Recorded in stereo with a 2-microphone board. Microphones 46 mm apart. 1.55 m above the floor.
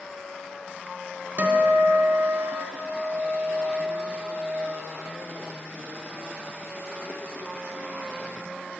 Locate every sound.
1.4 s a guitar: 35° right (ahead or behind), 0.9 m